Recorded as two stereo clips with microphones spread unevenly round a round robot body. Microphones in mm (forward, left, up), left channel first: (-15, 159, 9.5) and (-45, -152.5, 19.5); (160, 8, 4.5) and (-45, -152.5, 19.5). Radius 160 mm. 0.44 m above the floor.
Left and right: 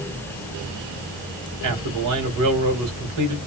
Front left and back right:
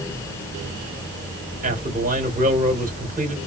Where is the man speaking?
90° right, 2.5 m.